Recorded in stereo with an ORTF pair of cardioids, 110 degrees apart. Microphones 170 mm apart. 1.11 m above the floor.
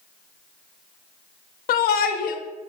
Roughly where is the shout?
Ahead left.